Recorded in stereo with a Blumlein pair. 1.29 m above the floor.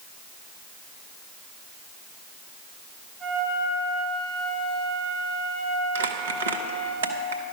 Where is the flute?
15° right, 3.5 m.